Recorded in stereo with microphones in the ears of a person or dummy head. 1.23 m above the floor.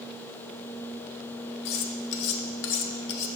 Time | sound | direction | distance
1.6 | cutlery clinking | 60° left (ahead or behind) | 0.6 m